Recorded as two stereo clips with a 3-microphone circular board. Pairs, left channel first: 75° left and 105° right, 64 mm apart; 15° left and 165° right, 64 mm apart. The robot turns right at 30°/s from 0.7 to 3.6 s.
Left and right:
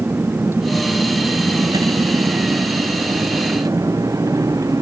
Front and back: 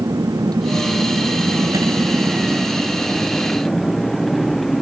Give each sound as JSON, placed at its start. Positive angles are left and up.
{"t": 0.0, "sound": "a vehicle", "azimuth_deg": -160}